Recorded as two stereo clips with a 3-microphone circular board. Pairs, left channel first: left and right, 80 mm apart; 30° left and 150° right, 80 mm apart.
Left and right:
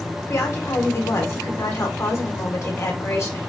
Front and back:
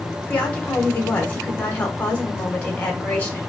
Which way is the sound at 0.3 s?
85° left.